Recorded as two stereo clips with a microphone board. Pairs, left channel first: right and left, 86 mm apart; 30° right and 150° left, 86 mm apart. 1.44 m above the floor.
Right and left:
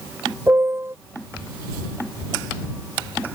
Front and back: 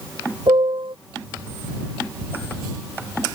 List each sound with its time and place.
0.5 s a piano: 150° left